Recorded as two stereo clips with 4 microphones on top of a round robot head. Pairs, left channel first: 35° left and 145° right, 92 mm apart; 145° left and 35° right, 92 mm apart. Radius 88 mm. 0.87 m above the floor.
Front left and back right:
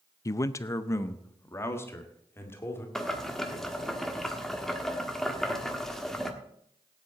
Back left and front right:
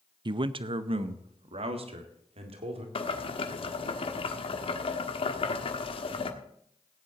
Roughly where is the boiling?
Behind left.